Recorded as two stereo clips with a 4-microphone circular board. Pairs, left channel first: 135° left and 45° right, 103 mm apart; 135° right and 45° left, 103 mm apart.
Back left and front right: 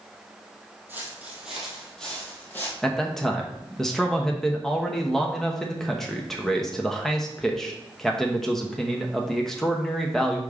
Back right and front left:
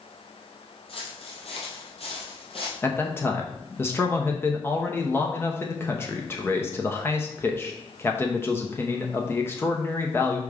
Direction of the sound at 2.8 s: 145° right.